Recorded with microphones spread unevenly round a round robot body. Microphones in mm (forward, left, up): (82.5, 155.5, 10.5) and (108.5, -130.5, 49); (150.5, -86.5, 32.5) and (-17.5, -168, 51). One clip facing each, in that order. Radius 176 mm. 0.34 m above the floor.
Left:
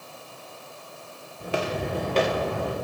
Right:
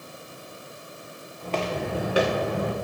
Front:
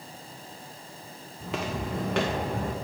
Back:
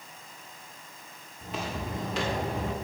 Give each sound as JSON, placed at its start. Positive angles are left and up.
{"t": 1.4, "sound": "footsteps", "azimuth_deg": 20, "distance_m": 2.0}